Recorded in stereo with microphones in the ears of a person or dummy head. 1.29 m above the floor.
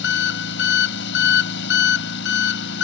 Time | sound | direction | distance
0.0 | an engine running | 65° left (ahead or behind) | ?